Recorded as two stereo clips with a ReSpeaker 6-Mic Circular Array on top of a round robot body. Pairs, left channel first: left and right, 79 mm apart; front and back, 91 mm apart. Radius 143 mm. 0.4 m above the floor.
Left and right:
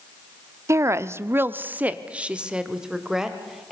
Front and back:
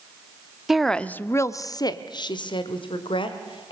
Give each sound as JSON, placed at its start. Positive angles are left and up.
{"t": 0.7, "sound": "a woman speaking", "azimuth_deg": -95, "distance_m": 0.9}